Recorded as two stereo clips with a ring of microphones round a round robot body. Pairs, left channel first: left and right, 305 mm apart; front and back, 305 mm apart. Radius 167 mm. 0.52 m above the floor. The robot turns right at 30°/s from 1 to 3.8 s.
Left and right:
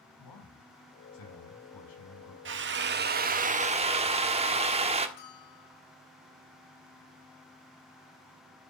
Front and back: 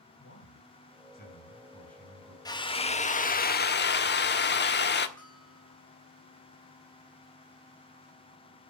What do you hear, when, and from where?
0.2 s a man speaking: 60° left, 5 m; by 2.4 s 100° left, 5 m
2.5 s a drill: 70° right, 1.3 m; by 5.1 s 30° right, 1.3 m
5.2 s a bell: 85° left, 7.5 m